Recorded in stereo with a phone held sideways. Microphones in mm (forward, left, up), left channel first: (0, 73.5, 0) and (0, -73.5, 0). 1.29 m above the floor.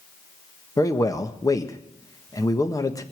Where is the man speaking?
25° left (ahead or behind), 1.3 m.